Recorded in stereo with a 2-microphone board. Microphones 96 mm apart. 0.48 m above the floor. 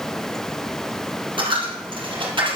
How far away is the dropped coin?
About 4 m.